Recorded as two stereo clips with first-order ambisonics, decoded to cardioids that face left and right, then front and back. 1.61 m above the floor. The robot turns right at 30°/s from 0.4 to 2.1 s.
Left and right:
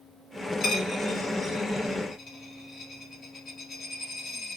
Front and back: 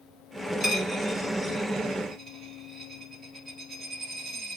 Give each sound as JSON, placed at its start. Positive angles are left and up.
{"t": 0.6, "sound": "a dropped coin", "azimuth_deg": 55, "distance_m": 1.2}